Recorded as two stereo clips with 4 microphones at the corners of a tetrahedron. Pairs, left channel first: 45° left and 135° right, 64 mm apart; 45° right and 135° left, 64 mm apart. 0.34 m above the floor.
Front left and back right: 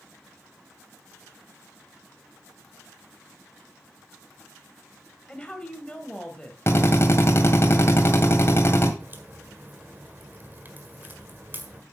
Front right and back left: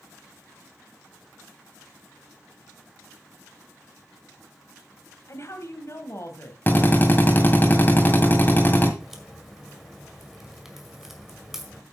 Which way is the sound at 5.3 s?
25° right.